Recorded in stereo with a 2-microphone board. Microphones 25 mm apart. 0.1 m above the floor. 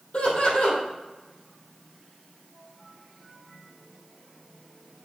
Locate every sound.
0.1 s laughter: 55° left (ahead or behind), 4 m